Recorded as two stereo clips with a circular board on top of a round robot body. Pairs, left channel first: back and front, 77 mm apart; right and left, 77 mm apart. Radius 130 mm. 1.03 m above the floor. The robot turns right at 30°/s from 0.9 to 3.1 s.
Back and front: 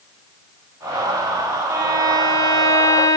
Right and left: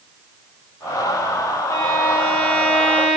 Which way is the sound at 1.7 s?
50° right.